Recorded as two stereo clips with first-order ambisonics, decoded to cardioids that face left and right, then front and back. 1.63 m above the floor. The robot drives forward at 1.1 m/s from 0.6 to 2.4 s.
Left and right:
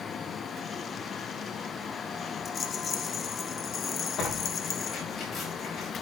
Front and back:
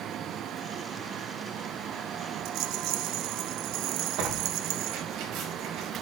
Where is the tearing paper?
150° left, 5 m.